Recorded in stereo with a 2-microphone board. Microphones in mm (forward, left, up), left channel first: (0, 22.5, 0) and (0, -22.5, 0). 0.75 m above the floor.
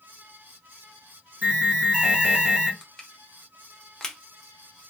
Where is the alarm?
30° right (ahead or behind), 2.5 m.